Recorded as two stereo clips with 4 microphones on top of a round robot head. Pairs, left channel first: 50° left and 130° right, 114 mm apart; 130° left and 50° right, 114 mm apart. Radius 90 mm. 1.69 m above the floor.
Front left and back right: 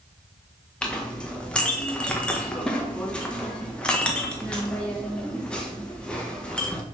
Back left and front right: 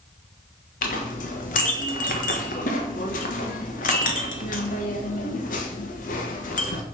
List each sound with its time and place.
0.8 s a clink: 130° left, 1.5 m